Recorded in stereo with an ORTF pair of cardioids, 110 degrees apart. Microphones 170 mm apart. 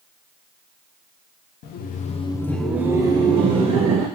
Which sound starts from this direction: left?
Laughter, at 1.6 s.